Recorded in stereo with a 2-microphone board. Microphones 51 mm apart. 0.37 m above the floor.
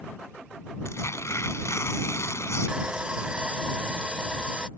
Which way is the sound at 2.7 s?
20° right (ahead or behind).